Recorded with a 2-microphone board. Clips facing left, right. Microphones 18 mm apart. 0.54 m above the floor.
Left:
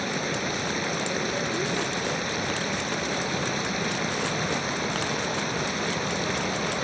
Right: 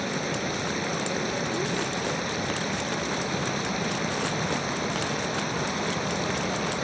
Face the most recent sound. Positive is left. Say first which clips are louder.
# left 1 dB
turn(degrees=10)  # may be behind; listen again after turning